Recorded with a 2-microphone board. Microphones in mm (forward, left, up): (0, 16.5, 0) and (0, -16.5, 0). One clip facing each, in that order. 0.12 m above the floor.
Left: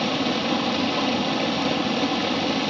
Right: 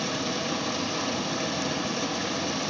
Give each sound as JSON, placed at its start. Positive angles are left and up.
{"t": 0.0, "sound": "running water", "side_deg": 40, "distance_m": 0.8}